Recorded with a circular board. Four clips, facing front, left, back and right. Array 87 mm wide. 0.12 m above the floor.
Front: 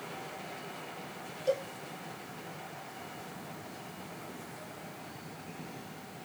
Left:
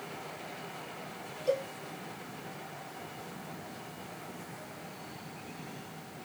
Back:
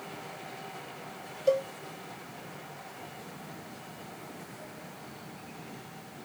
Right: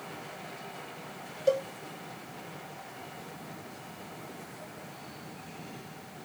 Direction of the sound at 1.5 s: 105° right.